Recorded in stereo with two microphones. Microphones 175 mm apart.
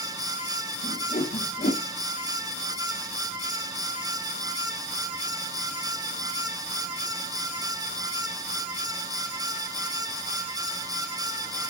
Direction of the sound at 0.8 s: 60° left (ahead or behind).